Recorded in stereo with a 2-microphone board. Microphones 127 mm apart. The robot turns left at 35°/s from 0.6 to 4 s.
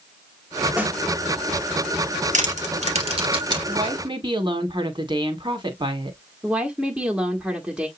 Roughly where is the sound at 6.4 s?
Centre.